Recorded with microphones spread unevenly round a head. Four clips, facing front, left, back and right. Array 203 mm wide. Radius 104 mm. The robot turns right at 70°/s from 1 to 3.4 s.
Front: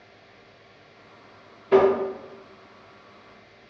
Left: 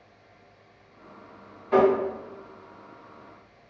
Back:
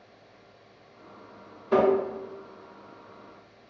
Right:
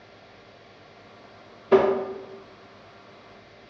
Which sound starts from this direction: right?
Tapping, at 1.7 s.